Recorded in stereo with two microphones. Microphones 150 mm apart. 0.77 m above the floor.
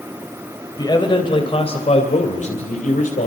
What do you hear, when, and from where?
0.8 s a man speaking: 25° left (ahead or behind), 3.5 m; by 3.3 s 65° left (ahead or behind), 3.5 m